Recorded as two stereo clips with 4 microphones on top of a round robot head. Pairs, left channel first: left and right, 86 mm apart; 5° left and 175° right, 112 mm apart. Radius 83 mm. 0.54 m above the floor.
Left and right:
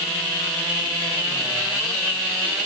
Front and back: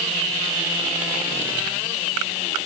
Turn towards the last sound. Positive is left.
No sound to turn to.